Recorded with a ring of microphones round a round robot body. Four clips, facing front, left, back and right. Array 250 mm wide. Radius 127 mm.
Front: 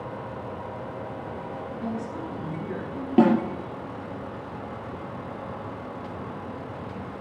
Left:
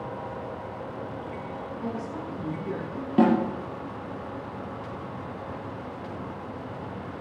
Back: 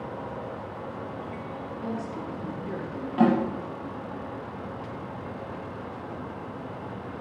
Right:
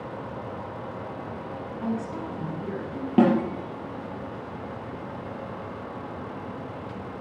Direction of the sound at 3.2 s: 50° right.